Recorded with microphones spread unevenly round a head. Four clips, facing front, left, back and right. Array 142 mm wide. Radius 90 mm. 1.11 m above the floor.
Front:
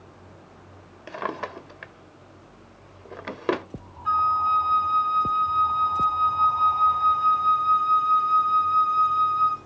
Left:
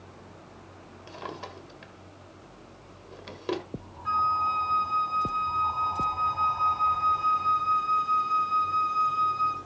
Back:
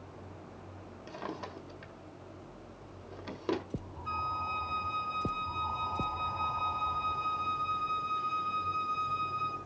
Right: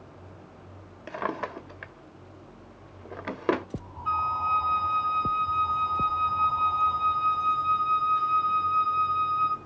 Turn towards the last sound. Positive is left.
turn(degrees=15)